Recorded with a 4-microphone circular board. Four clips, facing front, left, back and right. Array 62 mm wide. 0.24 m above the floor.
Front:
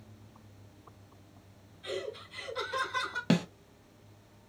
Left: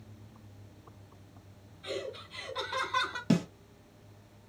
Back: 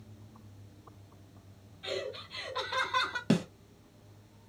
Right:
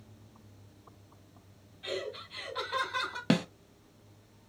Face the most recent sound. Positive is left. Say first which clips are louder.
# even, front 1 dB
turn(degrees=-70)